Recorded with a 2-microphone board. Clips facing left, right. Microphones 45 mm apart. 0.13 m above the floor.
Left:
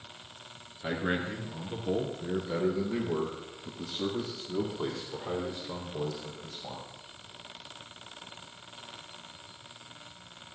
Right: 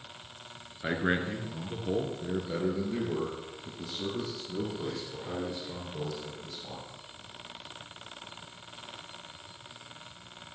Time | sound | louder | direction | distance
0.8 | a man speaking | right 2 dB | 30° right (ahead or behind) | 1.9 m